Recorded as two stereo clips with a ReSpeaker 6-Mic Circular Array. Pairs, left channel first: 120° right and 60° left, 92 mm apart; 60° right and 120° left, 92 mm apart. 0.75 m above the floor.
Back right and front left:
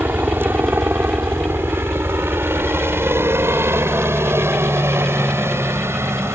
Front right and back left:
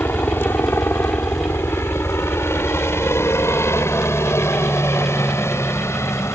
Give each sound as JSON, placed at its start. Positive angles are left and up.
{"t": 0.0, "sound": "a helicopter", "azimuth_deg": 0}